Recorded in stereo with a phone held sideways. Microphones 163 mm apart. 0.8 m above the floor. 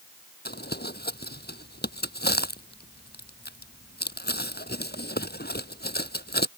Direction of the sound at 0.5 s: 80° left.